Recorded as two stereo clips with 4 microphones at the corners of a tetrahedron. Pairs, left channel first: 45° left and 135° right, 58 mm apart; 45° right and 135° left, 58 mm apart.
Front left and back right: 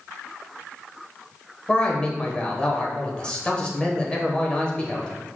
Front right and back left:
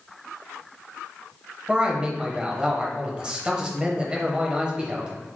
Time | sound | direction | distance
1.7 | a man speaking | 90° left | 0.9 m